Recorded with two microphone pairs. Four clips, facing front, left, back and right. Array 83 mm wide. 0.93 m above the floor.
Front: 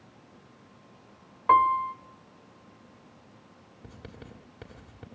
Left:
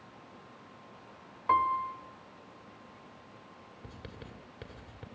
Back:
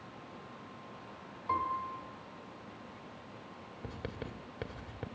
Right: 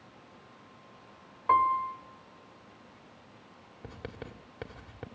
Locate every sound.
1.5 s a piano: 10° right, 1.4 m
3.8 s writing: 125° right, 1.8 m